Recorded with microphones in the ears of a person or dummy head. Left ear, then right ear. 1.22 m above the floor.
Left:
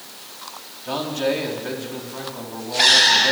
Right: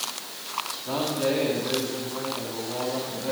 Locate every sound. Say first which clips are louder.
0.8 s a man speaking: left 4 dB; 80° left, 9 m; by 3.3 s 90° left, 10 m